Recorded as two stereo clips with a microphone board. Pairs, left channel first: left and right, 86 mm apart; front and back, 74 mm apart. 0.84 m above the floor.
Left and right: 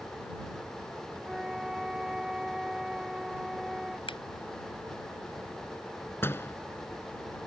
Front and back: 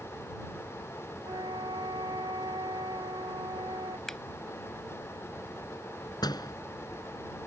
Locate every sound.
1.2 s a flute: 175° right
4.1 s a finger snap: 85° left
6.2 s a door slam: 25° left